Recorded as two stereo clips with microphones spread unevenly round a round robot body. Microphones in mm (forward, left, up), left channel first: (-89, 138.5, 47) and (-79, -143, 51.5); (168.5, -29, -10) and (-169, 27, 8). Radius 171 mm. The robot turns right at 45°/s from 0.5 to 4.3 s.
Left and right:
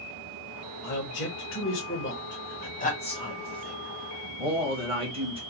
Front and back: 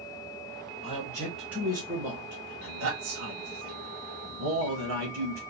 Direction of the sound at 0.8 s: 50° left.